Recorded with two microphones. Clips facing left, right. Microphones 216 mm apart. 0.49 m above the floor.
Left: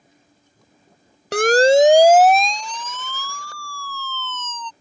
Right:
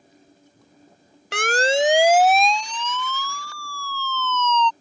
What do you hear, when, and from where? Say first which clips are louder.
1.3 s a siren: left 9 dB; 45° left (ahead or behind); by 4.7 s 50° left (ahead or behind)